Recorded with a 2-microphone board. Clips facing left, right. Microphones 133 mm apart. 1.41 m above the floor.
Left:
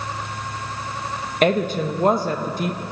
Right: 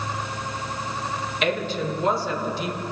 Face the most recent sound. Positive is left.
turn(degrees=50)  # may be behind; listen again after turning